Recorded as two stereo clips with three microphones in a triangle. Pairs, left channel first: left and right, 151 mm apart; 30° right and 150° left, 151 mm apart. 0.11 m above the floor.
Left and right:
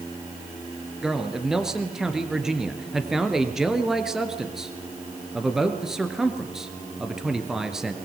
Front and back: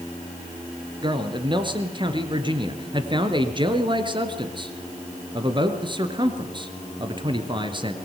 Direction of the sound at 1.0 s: 175° right.